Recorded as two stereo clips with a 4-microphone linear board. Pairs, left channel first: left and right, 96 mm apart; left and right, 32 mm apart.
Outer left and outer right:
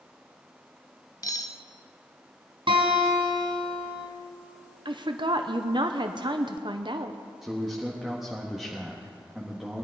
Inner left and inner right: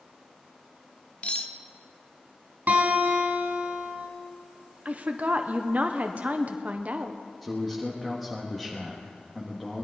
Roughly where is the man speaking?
Centre.